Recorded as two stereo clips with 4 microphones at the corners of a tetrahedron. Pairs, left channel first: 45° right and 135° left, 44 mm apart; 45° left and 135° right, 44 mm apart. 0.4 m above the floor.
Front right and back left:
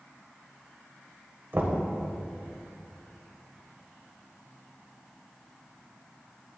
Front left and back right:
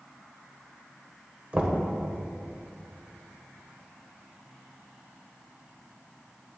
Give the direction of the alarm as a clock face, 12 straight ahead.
I don't hear an alarm.